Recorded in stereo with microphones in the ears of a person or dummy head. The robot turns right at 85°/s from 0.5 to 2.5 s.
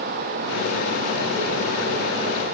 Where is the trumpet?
I don't hear a trumpet.